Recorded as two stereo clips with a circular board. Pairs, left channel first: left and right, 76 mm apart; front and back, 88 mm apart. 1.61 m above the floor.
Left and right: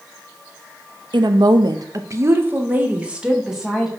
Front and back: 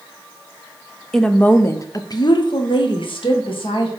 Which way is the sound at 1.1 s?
85° right.